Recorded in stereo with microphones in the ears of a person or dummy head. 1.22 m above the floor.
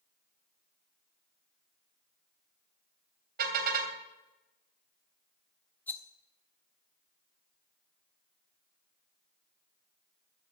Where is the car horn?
55° right (ahead or behind), 2.5 m.